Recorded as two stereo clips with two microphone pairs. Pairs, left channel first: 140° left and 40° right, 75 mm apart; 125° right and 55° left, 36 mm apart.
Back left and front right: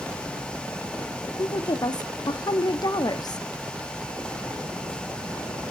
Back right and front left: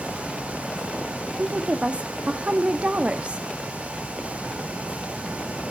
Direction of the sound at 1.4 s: 115° left.